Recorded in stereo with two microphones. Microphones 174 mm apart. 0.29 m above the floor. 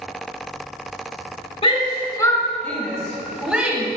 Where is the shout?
30° left (ahead or behind), 1.1 m; by 3.9 s 10° right (ahead or behind), 1.6 m.